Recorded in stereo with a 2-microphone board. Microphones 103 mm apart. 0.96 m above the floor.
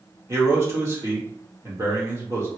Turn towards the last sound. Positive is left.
turn(degrees=-25)  # may be behind; listen again after turning